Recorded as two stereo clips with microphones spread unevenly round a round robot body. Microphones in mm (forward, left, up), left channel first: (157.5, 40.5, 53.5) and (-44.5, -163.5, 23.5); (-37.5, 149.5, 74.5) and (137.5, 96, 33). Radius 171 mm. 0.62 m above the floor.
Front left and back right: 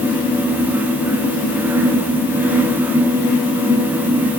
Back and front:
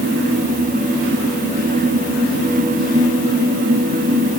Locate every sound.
Only background noise.